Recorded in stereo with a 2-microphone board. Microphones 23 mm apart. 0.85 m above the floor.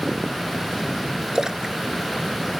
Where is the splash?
30° right (ahead or behind).